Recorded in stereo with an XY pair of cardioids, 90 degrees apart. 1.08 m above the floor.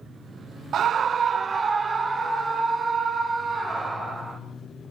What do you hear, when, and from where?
0.7 s a scream: 70° right, 0.5 m; by 4.4 s 35° right, 4.5 m